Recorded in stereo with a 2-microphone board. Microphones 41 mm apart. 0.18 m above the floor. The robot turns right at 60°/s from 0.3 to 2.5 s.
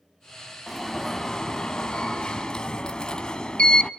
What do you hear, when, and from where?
0.7 s an alarm: centre (ahead or behind), 0.8 m; by 3.9 s 20° left (ahead or behind), 0.8 m